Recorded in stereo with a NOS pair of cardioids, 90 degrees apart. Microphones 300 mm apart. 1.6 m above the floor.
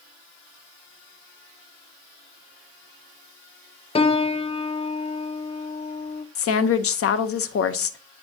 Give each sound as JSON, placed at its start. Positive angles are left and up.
{"t": 4.0, "sound": "a piano", "azimuth_deg": 20, "distance_m": 0.5}
{"t": 6.3, "sound": "a woman speaking", "azimuth_deg": 50, "distance_m": 0.8}